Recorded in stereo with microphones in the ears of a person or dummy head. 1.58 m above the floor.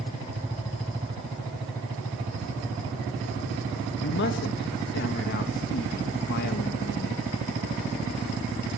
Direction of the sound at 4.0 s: 55° left (ahead or behind).